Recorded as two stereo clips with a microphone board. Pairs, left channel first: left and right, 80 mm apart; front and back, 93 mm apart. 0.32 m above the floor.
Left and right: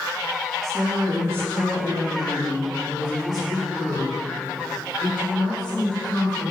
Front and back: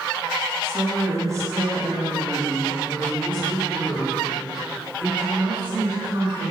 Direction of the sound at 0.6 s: 125° right.